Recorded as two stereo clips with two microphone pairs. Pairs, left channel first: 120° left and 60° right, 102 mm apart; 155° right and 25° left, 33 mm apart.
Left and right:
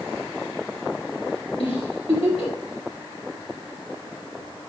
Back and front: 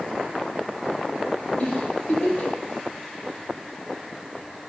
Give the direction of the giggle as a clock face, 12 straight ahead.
7 o'clock.